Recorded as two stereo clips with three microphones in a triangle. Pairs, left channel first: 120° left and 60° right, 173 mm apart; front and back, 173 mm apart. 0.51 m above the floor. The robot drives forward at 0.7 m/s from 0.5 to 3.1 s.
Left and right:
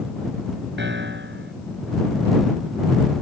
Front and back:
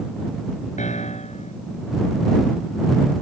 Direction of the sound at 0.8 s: 50° right.